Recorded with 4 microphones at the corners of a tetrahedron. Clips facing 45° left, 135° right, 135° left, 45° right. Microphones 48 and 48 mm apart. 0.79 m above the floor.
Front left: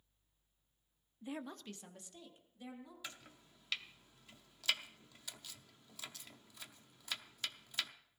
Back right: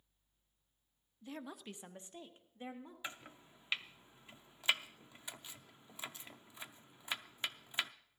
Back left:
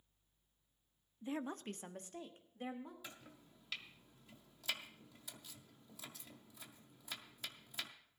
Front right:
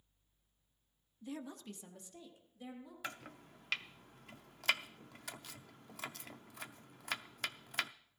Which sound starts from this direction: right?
Chopping, at 3.0 s.